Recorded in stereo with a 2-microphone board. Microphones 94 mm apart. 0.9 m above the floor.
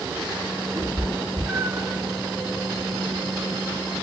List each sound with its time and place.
0.8 s a cat meowing: 40° right (ahead or behind), 3 m; by 2.0 s 20° right (ahead or behind), 3 m